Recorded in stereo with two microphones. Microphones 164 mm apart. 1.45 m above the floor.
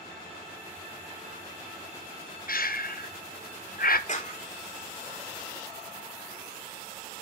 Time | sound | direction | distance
2.5 | breathing | 65° left (ahead or behind) | 0.9 m
4.1 | a clap | 50° left (ahead or behind) | 3 m